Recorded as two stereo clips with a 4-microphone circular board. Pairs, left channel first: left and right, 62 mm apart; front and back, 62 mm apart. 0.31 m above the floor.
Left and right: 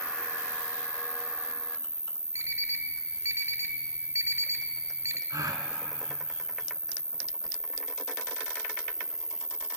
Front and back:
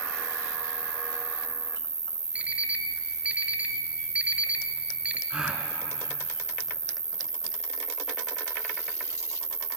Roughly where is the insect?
Behind.